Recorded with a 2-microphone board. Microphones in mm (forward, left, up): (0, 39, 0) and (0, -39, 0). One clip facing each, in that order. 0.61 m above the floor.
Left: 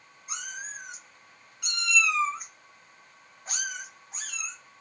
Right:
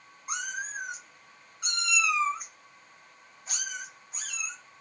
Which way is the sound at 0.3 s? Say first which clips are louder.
Right 5 dB; 55° right (ahead or behind).